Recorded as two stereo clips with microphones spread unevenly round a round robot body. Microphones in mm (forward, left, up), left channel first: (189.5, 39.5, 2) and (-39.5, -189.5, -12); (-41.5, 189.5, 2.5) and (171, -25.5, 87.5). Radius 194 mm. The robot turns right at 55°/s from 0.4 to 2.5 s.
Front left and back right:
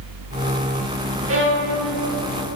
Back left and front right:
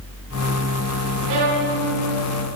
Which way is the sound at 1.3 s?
90° right.